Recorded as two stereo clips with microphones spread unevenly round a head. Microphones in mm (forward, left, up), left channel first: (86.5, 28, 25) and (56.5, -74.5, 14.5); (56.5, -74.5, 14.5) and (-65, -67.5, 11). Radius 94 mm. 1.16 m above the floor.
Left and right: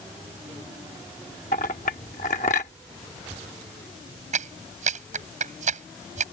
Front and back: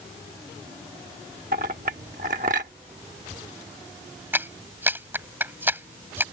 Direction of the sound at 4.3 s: 110° right.